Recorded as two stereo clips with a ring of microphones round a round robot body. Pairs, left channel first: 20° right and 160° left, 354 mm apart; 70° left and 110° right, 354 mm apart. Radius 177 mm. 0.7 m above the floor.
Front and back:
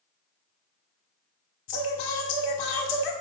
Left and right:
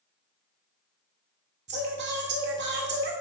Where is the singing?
50° right, 1.6 m.